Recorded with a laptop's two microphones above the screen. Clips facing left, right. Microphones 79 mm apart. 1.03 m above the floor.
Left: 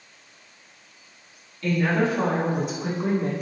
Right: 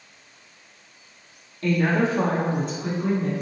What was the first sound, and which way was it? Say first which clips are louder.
A woman speaking: right 1 dB; 50° right (ahead or behind).